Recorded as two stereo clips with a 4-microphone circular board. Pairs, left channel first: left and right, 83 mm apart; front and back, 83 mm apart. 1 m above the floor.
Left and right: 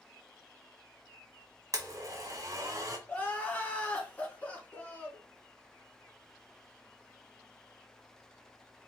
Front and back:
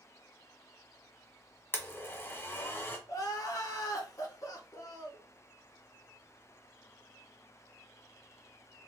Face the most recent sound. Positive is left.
turn(degrees=25)